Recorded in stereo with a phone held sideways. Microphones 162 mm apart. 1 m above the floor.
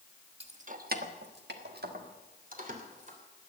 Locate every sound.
0.4 s keys jangling: 35° right (ahead or behind), 1.3 m; by 3.2 s 45° right (ahead or behind), 3 m